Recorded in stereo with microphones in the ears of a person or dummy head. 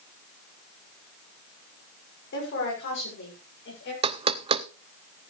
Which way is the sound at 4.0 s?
30° right (ahead or behind).